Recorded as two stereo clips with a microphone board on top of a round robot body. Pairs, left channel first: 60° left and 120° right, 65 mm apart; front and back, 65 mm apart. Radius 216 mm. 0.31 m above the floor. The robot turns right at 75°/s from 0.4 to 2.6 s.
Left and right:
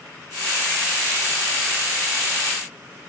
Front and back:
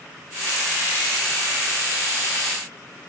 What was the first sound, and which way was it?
Only background noise.